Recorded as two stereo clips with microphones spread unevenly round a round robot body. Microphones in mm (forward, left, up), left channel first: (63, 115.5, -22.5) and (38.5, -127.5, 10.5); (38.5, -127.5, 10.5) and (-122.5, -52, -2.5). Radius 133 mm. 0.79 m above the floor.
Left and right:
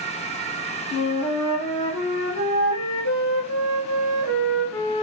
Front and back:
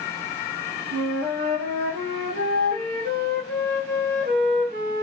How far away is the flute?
About 1.8 m.